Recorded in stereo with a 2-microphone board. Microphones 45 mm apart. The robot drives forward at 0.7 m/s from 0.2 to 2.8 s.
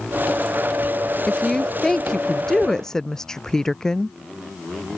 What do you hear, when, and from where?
1.3 s a woman speaking: 10° left (ahead or behind)